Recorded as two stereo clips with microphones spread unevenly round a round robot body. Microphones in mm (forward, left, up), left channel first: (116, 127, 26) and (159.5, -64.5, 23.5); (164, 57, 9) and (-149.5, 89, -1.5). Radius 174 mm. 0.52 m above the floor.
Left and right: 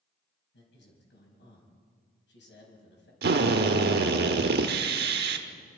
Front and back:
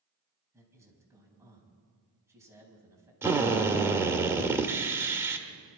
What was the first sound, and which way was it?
A man speaking, 95° left.